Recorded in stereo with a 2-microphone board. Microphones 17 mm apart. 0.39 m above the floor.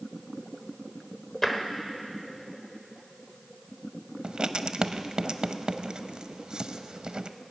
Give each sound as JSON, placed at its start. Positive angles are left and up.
{"t": 1.4, "sound": "tapping", "side_deg": 20, "distance_m": 1.3}
{"t": 4.2, "sound": "writing", "side_deg": -55, "distance_m": 0.5}